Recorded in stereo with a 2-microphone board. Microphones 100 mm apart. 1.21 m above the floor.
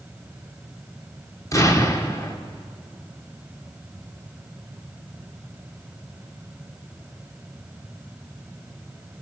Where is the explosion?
35° left (ahead or behind), 2 m.